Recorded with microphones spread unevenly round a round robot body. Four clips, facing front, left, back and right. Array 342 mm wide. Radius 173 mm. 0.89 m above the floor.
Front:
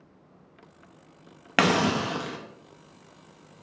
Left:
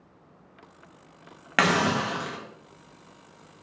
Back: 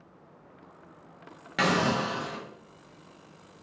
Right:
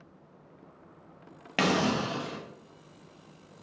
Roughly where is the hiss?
Ahead.